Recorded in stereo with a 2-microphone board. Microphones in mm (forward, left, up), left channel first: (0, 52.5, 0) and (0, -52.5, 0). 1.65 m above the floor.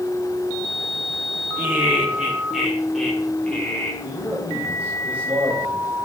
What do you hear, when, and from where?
1.6 s laughter: 15° right (ahead or behind), 4.5 m; by 3.9 s 15° left (ahead or behind), 6 m
4.0 s a man speaking: 15° right (ahead or behind), 6.5 m